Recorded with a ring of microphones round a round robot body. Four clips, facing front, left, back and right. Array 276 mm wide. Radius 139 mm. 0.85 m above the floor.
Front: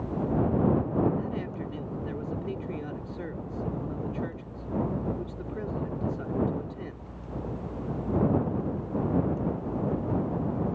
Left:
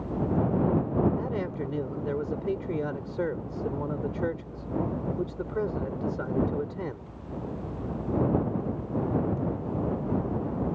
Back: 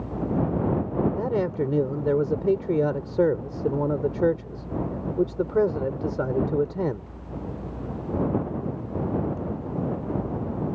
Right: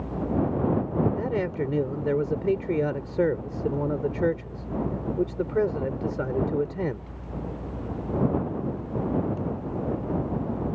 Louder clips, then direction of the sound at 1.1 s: Right 4 dB, back 8 dB; 155° right.